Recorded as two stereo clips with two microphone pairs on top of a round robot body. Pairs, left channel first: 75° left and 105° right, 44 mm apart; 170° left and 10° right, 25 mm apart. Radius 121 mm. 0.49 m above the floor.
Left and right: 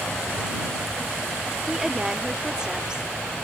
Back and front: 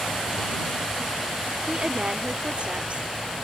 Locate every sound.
1.7 s a woman speaking: 25° right; by 3.1 s 30° right